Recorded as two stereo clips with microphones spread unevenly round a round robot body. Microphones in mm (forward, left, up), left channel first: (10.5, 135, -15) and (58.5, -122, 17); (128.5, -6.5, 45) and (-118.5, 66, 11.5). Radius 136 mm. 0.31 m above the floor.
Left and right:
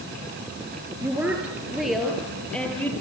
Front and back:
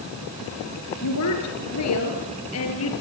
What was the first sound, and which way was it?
A woman speaking, straight ahead.